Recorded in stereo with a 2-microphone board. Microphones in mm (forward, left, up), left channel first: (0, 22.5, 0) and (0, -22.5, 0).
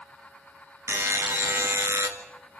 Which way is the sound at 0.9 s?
75° right (ahead or behind).